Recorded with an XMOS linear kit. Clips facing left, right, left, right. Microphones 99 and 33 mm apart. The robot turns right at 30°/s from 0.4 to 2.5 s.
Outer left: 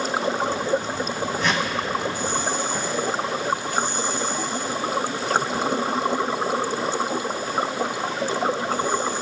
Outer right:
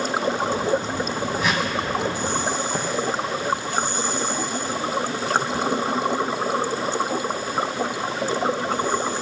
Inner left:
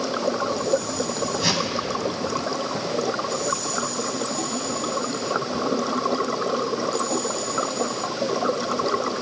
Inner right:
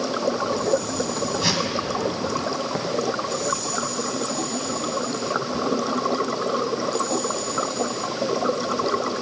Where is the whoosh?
5° right (ahead or behind), 1.5 m; by 1.7 s 10° right (ahead or behind), 1.5 m.